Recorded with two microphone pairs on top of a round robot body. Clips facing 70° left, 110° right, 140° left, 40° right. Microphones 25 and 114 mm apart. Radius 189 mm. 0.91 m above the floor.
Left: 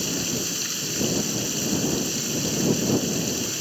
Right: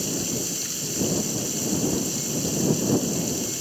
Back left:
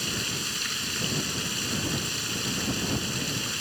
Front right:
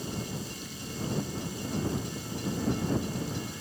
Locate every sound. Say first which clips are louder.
0.0 s running water: left 1 dB, back left 1 dB; 140° left